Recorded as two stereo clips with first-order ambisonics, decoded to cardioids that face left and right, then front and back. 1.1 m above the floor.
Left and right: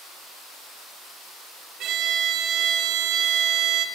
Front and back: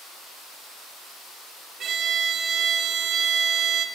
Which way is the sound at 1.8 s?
125° right.